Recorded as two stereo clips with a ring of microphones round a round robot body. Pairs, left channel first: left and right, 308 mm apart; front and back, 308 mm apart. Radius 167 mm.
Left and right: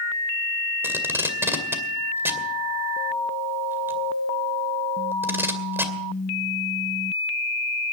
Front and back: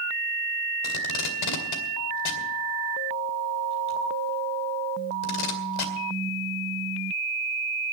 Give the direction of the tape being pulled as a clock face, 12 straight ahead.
12 o'clock.